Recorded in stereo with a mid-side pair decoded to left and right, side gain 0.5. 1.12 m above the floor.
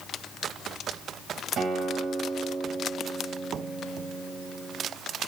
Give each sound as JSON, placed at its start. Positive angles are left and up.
{"t": 1.6, "sound": "a guitar", "azimuth_deg": -60, "distance_m": 2.5}